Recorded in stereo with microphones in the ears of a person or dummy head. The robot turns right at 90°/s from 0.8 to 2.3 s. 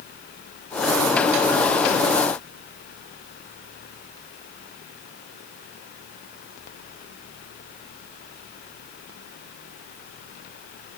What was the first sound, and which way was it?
Only background noise.